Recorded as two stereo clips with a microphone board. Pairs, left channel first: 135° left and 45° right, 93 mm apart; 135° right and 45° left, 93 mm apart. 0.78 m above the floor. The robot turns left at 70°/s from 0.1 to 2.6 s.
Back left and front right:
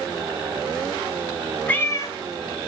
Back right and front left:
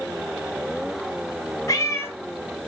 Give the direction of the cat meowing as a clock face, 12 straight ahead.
5 o'clock.